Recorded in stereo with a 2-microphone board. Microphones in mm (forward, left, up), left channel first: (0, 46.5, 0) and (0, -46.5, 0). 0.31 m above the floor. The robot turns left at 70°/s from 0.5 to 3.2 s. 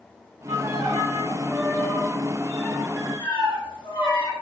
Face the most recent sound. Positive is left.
turn(degrees=120)